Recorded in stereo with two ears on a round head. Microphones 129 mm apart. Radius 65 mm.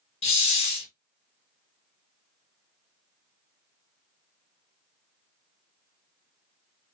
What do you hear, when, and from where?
0.2 s a hiss: 40° left (ahead or behind), 0.7 m